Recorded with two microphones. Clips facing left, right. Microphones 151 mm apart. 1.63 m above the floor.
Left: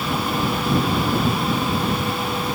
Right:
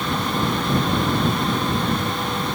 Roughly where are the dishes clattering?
I don't hear dishes clattering.